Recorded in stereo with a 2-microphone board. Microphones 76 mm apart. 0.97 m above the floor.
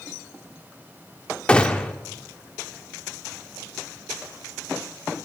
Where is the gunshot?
15° left (ahead or behind), 0.9 m.